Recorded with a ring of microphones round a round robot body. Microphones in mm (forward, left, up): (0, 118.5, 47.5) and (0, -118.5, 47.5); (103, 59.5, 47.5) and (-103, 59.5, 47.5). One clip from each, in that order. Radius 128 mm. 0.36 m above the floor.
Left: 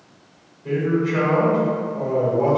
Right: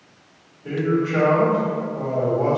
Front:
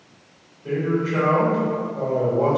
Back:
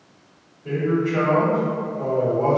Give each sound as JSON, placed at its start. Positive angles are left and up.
{"t": 0.6, "sound": "a man speaking", "azimuth_deg": -10, "distance_m": 2.0}